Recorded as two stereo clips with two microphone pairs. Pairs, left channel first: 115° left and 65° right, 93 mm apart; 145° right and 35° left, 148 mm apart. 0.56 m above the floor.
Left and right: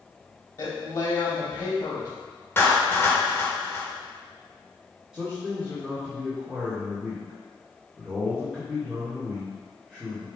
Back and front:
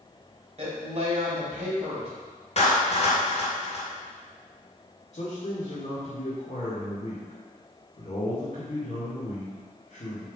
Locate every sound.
0.6 s a woman speaking: 75° left, 3 m
2.6 s a clap: straight behind, 1.9 m
5.1 s a man speaking: 145° right, 1.8 m